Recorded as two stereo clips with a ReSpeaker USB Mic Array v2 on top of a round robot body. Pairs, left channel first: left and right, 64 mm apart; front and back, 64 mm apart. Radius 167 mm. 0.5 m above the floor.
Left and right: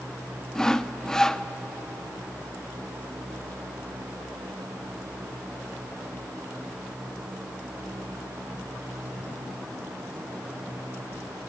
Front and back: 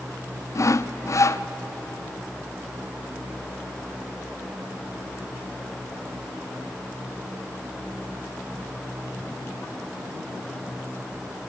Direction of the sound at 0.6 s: 10° left.